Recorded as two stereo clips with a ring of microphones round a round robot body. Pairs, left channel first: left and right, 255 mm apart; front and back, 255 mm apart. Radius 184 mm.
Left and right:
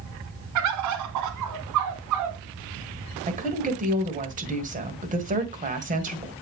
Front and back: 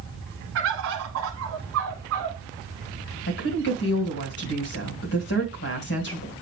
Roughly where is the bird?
Behind right.